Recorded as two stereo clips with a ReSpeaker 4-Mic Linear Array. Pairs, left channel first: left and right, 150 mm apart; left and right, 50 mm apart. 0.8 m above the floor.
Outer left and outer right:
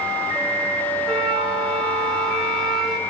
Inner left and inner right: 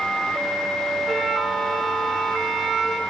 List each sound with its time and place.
1.1 s a flute: centre (ahead or behind), 3.5 m